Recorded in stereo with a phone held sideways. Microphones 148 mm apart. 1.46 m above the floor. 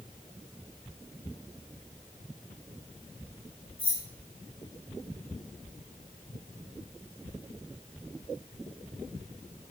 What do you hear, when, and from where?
3.8 s keys jangling: 65° left (ahead or behind), 2 m